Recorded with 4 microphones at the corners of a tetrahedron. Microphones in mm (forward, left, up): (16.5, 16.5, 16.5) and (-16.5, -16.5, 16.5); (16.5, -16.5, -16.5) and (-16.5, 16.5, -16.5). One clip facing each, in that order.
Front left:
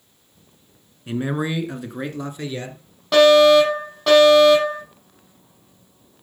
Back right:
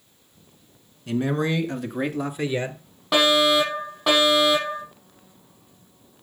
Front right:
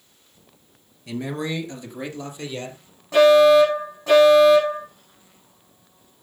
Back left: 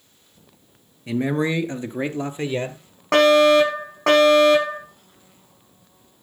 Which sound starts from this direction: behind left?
A fire alarm, at 3.1 s.